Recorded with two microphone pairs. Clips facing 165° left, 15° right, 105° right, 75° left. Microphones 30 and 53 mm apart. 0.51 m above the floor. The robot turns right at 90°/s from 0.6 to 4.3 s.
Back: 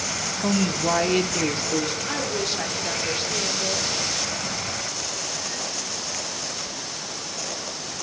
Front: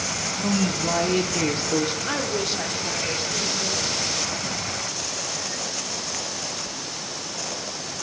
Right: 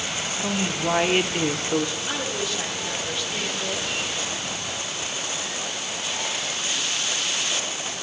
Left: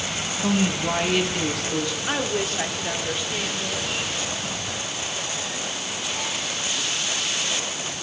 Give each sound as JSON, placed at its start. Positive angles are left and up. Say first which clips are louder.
{"t": 0.4, "sound": "a woman speaking", "louder": "back 1 dB, left 4 dB", "azimuth_deg": 170, "distance_m": 0.8}
{"t": 2.1, "sound": "a woman speaking", "louder": "front 1 dB, left 3 dB", "azimuth_deg": 30, "distance_m": 1.2}